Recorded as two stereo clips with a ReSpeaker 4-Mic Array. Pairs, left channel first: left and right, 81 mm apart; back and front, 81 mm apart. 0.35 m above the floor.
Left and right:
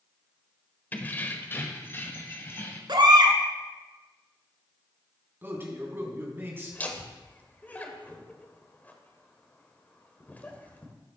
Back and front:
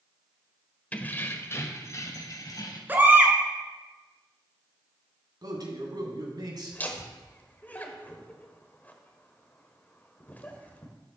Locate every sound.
0.9 s keys jangling: 130° left, 0.8 m; by 2.8 s 145° left, 1.5 m
2.9 s a baby crying: 65° right, 1.3 m
5.4 s a man speaking: 30° right, 2.5 m
6.7 s laughter: 135° left, 1.3 m